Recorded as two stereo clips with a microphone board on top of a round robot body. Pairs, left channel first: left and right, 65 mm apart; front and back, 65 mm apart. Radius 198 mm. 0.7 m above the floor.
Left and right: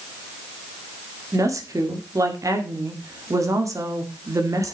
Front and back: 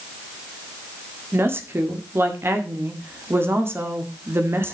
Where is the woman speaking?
125° right, 2 m.